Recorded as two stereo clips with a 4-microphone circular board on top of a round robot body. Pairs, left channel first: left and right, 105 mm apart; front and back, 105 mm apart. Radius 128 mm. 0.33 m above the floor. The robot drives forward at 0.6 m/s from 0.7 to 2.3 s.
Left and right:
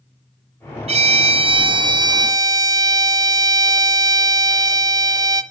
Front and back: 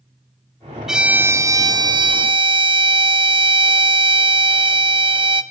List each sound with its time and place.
0.9 s a violin: 95° right, 0.7 m; by 5.4 s 145° right, 1.2 m